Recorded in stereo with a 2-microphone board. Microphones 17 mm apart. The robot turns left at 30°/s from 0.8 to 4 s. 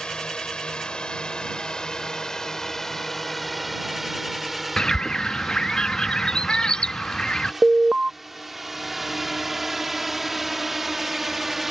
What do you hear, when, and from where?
0.0 s a drone: 75° left (ahead or behind); by 11.7 s 10° right (ahead or behind)
4.8 s a bird: 55° left (ahead or behind)
7.6 s an alarm: 35° right (ahead or behind)